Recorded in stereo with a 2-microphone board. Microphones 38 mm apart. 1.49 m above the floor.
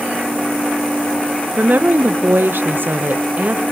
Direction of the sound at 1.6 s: 45° right (ahead or behind).